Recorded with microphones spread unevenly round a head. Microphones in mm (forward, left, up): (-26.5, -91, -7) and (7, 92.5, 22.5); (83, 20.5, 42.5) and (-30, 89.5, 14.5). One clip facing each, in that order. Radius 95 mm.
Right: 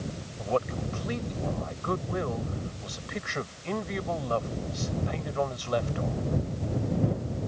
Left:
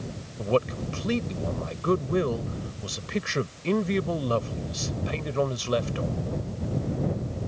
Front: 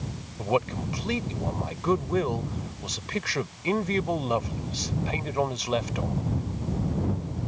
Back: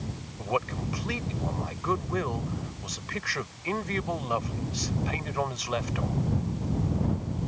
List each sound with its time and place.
0.4 s a man speaking: 30° left